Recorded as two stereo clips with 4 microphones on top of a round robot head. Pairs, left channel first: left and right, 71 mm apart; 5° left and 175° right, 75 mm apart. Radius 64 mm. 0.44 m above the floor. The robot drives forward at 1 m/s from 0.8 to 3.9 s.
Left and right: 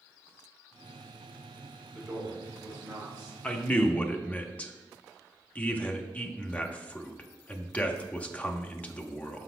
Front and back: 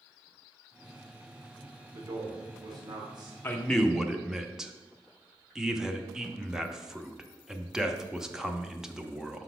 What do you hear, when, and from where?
1.9 s a man speaking: 160° right, 1.3 m; by 3.3 s 170° right, 2.5 m
3.4 s a man speaking: 35° left, 0.8 m; by 9.5 s 115° left, 0.7 m